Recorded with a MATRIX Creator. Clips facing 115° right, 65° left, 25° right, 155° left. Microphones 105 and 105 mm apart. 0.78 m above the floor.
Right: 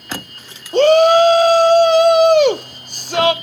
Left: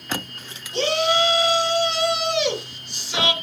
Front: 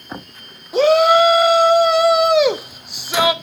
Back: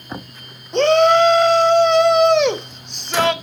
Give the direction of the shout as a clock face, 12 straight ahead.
3 o'clock.